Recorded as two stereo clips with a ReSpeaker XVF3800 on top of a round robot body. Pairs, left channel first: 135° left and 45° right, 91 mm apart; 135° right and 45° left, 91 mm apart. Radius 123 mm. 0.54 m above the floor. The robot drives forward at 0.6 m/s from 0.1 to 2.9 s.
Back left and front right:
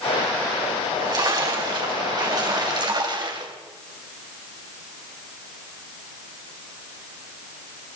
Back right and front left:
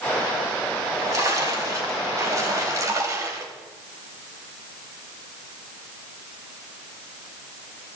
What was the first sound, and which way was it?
A splash, 5° right.